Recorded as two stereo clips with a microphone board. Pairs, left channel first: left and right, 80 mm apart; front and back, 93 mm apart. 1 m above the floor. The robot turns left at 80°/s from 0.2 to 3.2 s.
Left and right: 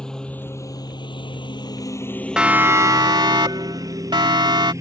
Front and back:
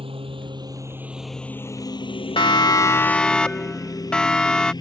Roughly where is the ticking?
I don't hear ticking.